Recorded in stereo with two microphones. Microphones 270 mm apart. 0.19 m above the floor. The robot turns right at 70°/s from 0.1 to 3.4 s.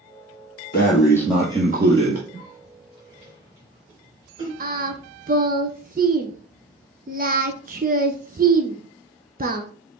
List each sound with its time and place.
0.7 s breathing: 140° left, 1.2 m; by 2.2 s 115° right, 1.2 m
2.3 s a cough: 60° right (ahead or behind), 3 m; by 4.5 s 20° right (ahead or behind), 3 m
4.6 s singing: 35° right (ahead or behind), 0.5 m